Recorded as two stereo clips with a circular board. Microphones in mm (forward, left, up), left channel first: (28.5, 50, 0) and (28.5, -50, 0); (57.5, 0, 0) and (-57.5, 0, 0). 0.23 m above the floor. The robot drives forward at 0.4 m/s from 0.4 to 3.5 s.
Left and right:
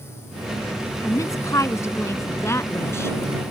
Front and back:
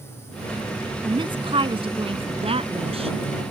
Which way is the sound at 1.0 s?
145° left.